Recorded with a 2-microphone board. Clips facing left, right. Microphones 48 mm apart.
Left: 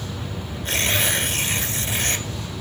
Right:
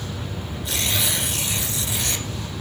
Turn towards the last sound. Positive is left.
turn(degrees=45)  # may be behind; listen again after turning